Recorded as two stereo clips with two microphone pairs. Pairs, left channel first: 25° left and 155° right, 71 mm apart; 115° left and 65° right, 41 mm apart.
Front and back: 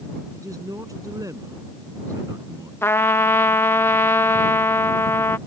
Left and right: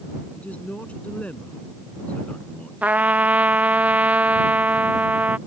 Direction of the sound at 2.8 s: 25° right.